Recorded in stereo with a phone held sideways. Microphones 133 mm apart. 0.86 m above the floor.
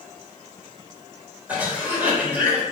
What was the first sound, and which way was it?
A cough, 10° right (ahead or behind).